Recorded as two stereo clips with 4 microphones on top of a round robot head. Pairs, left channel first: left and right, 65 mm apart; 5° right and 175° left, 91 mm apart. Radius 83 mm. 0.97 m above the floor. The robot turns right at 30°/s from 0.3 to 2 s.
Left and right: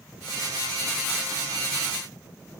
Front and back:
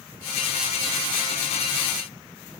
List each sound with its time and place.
Only background noise.